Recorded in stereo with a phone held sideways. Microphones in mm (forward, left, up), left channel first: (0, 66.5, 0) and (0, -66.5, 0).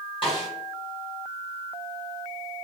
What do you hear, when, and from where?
0.2 s a snare drum: 40° left (ahead or behind), 1.4 m